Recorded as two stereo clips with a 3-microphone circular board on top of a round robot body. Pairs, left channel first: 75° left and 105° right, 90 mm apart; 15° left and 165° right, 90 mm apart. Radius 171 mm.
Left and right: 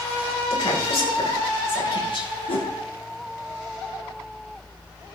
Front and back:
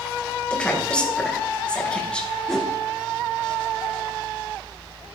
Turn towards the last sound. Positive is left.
turn(degrees=100)